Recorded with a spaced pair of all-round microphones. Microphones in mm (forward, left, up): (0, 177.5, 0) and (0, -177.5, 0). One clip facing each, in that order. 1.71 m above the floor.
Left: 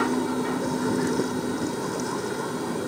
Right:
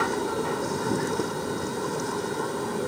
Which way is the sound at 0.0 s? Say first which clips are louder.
Left 3 dB; 65° left (ahead or behind).